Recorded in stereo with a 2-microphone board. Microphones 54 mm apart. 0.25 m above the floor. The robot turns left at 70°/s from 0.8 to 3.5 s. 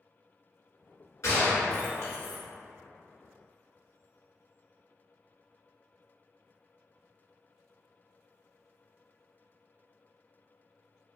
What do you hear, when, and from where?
1.2 s a gunshot: 70° left (ahead or behind), 1.3 m; by 2.4 s 25° left (ahead or behind), 1.3 m